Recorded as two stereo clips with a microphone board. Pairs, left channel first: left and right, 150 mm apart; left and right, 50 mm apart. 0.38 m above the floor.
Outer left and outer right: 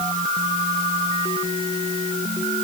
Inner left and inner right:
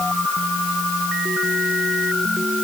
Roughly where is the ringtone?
I don't hear a ringtone.